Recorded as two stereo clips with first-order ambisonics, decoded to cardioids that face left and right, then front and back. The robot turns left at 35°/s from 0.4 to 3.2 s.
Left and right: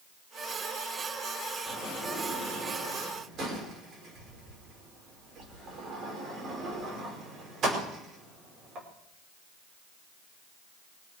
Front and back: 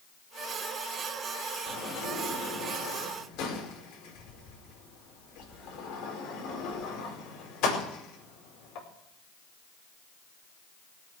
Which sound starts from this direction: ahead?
A sliding door, at 1.7 s.